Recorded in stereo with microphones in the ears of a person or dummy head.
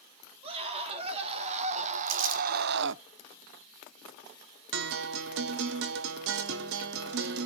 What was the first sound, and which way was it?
A scream, 30° right (ahead or behind).